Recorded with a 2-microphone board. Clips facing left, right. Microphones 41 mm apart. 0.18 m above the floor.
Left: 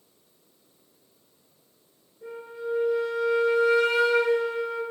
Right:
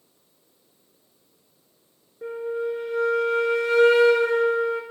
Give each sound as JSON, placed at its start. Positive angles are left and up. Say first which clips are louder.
{"t": 2.2, "sound": "a flute", "louder": "right 7 dB", "side_deg": -60, "distance_m": 1.4}